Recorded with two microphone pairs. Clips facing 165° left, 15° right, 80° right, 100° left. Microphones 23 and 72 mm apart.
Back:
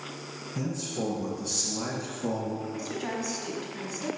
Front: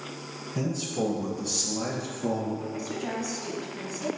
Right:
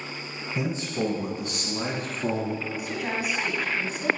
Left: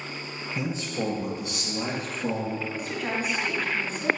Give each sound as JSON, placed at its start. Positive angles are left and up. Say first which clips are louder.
{"t": 0.6, "sound": "a man speaking", "louder": "front 3 dB, right 2 dB", "azimuth_deg": -35, "distance_m": 1.1}
{"t": 2.7, "sound": "a woman speaking", "louder": "front 1 dB, even", "azimuth_deg": -155, "distance_m": 1.4}